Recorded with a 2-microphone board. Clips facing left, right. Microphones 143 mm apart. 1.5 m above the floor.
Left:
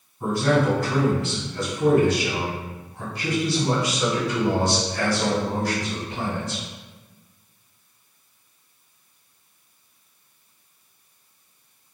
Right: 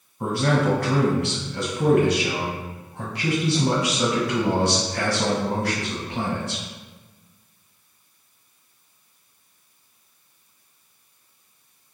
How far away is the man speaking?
About 1.1 m.